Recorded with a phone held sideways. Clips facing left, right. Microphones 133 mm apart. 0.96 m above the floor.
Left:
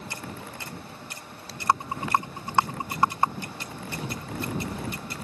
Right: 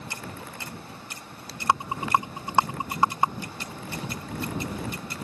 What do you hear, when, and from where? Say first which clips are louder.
1.7 s a rattle: right 1 dB; 15° right (ahead or behind)